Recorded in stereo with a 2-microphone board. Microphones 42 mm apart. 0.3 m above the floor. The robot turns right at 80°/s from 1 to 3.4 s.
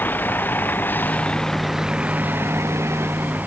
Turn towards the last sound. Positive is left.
turn(degrees=-40)  # may be behind; listen again after turning